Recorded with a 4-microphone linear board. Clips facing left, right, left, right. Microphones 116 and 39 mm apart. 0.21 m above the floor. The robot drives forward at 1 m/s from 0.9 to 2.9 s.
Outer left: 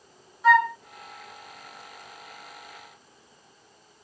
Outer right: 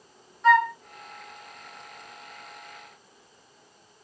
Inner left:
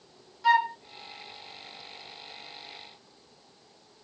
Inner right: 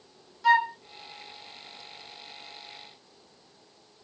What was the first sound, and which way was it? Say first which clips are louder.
A flute: even, inner right 1 dB; 5° left (ahead or behind).